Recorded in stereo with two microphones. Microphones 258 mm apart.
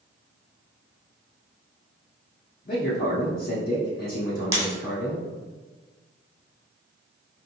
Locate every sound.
2.6 s a man speaking: 35° left (ahead or behind), 0.8 m
4.5 s breaking glass: 30° right (ahead or behind), 1.6 m